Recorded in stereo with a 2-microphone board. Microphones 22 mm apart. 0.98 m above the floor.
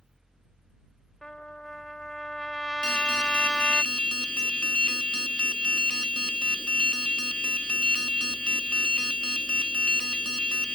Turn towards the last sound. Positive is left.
turn(degrees=50)  # may be behind; listen again after turning